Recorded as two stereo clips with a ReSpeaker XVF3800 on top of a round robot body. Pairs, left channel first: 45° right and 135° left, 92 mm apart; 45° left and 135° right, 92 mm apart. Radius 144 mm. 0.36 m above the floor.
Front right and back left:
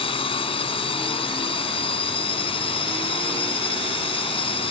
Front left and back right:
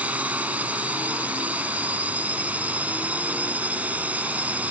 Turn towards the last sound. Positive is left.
turn(degrees=-60)